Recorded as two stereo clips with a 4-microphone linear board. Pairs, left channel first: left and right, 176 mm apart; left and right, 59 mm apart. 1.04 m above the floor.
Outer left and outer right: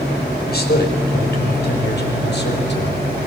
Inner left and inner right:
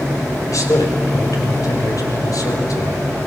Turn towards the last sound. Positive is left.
turn(degrees=80)